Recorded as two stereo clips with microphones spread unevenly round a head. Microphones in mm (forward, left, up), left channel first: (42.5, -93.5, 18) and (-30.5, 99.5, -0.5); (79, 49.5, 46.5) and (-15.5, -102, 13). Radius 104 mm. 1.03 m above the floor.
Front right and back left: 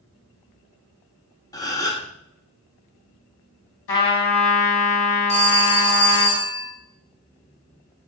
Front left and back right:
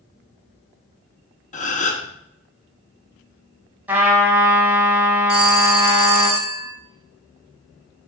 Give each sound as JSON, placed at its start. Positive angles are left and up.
{"t": 1.5, "sound": "a gasp", "azimuth_deg": 5, "distance_m": 1.2}
{"t": 3.9, "sound": "a trumpet", "azimuth_deg": -40, "distance_m": 3.0}
{"t": 5.3, "sound": "a phone ringing", "azimuth_deg": -5, "distance_m": 5.0}